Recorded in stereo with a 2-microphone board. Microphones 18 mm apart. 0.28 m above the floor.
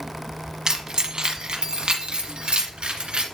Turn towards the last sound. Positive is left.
turn(degrees=-75)  # may be behind; listen again after turning